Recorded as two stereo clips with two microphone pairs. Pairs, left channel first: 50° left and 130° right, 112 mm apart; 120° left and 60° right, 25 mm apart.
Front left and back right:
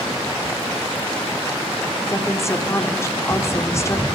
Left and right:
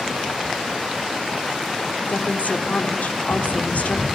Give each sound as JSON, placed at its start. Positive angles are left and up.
{"t": 2.1, "sound": "a woman speaking", "azimuth_deg": 115, "distance_m": 3.5}